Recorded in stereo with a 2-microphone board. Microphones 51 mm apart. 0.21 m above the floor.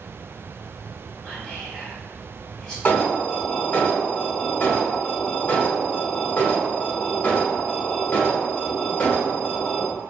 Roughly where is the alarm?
Left.